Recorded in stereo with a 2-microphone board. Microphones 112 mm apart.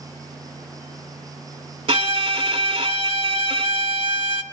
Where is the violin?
60° right (ahead or behind), 0.6 m.